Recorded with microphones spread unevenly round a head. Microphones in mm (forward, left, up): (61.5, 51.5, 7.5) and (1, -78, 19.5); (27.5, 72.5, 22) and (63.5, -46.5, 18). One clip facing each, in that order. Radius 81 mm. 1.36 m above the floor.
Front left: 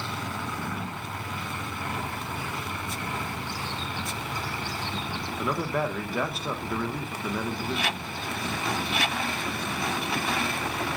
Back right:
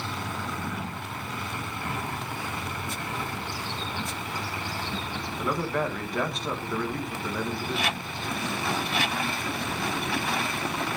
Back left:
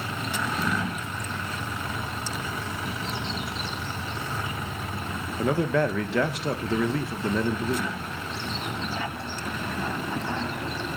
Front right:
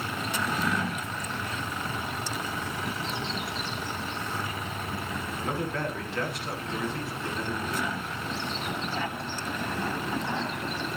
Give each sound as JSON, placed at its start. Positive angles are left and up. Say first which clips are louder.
{"t": 5.4, "sound": "a man speaking", "louder": "even, back left 9 dB", "azimuth_deg": 150, "distance_m": 1.5}